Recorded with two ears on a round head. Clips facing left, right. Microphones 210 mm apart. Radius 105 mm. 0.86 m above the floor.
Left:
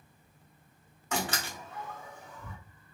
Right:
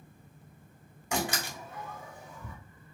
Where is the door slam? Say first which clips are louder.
Right 2 dB; 10° right (ahead or behind), 1.5 m.